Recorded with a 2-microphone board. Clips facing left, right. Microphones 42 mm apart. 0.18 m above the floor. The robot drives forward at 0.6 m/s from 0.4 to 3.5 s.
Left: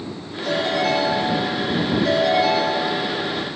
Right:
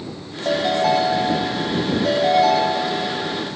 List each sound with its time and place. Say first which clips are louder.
0.5 s a ringtone: right 2 dB; 55° right (ahead or behind), 5.5 m; by 3.6 s 45° right (ahead or behind), 6.5 m